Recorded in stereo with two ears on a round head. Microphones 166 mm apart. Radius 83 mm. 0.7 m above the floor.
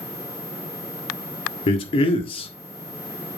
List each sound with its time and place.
1.7 s a man speaking: 30° left (ahead or behind), 1.6 m